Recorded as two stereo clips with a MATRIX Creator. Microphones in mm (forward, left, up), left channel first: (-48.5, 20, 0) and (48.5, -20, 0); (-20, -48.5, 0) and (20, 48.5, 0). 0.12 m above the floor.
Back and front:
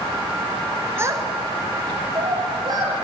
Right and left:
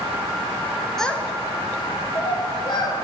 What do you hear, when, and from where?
1.0 s a child speaking: 30° right, 0.6 m; by 2.9 s 70° right, 3 m